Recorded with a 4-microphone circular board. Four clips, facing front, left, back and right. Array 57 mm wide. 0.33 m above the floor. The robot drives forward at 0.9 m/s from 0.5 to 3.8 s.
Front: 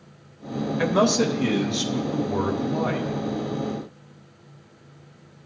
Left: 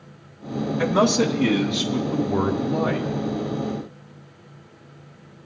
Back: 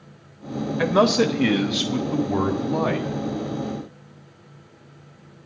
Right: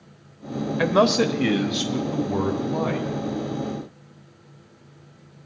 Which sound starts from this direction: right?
A man speaking, at 0.8 s.